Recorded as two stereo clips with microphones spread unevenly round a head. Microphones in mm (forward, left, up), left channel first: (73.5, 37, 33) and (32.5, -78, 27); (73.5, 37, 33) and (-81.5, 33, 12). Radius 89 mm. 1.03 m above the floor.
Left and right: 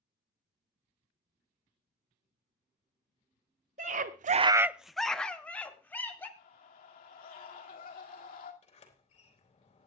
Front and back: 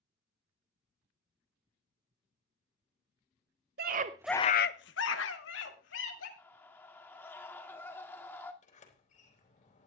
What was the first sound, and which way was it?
A scream, 150° right.